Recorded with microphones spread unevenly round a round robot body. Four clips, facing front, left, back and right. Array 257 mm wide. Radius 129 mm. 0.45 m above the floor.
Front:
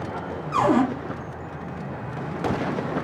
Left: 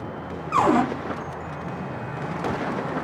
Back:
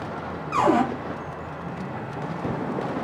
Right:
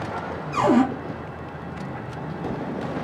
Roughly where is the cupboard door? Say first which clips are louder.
Right 1 dB, even; left.